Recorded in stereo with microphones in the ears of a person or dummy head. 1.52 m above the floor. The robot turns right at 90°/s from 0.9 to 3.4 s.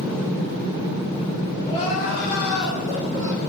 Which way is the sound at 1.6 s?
15° left.